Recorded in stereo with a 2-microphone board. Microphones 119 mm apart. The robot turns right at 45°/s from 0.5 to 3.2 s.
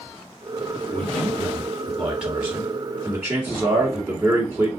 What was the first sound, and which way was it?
A man speaking, 15° left (ahead or behind).